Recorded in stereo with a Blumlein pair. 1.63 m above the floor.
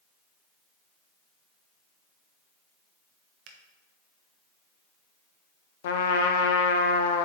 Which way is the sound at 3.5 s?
40° right.